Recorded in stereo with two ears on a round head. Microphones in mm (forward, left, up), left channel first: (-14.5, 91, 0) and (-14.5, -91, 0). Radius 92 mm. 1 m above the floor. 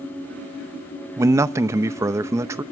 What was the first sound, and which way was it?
A man speaking, 15° right (ahead or behind).